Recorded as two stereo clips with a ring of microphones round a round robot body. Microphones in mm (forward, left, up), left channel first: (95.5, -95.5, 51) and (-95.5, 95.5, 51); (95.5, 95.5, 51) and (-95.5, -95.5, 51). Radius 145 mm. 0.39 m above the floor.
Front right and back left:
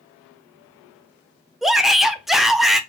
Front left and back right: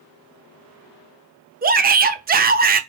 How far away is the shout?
About 0.8 m.